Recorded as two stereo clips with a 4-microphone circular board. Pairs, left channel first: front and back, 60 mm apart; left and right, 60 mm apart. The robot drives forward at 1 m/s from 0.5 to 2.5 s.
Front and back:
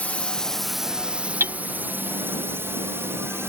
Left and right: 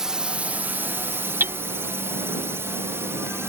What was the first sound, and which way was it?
A drone, 20° right.